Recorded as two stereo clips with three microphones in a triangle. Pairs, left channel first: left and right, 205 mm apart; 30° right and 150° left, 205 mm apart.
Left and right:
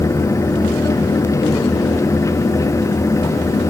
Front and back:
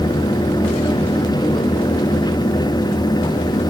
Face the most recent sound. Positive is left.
No sound to turn to.